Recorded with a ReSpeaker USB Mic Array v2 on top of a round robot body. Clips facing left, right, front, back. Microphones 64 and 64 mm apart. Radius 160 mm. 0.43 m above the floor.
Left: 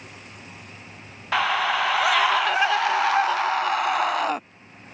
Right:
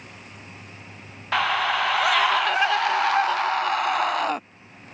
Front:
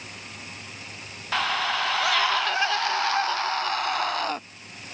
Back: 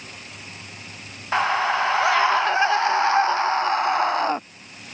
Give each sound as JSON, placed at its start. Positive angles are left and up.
{"t": 1.3, "sound": "a scream", "azimuth_deg": 175}